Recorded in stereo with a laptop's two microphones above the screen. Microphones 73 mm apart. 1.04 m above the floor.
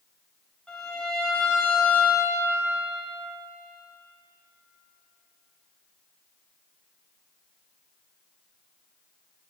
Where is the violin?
10° left (ahead or behind), 1.4 m.